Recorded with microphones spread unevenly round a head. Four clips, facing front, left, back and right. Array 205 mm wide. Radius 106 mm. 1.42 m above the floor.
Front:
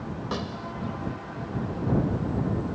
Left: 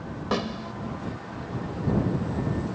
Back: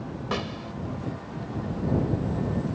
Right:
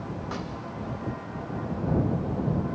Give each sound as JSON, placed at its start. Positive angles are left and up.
{"t": 0.3, "sound": "a snare drum", "azimuth_deg": 90}